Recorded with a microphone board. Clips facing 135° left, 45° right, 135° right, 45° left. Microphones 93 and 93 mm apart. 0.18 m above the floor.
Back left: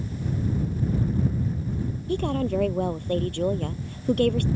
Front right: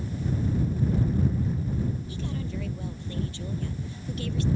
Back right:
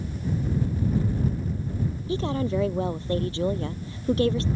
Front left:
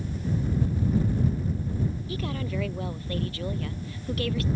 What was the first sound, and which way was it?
A woman speaking, 165° left.